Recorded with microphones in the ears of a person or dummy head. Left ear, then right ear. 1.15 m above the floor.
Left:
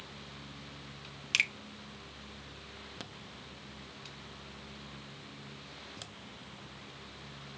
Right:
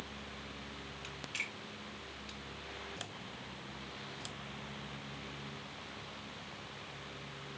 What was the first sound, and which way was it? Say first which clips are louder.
A finger snap: left 11 dB; 60° left (ahead or behind).